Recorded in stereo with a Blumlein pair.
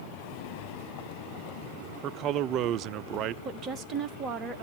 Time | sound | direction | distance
2.0 | a man speaking | 35° right | 0.6 m
3.5 | a woman speaking | 25° right | 1.9 m